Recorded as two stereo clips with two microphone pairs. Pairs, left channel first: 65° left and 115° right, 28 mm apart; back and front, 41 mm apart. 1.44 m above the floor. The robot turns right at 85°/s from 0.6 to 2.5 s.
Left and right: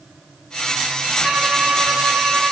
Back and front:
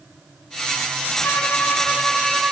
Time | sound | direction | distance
1.2 | a violin | straight behind | 2.5 m